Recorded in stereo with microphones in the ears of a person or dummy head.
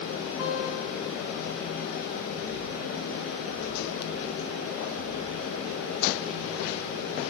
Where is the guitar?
20° right (ahead or behind), 7 m.